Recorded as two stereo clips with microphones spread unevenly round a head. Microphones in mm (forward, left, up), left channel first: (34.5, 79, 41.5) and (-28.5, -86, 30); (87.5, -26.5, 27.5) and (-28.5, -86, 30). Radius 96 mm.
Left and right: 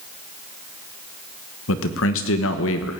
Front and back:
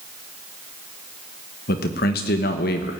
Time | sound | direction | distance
1.7 | a man speaking | 55° left | 1.1 m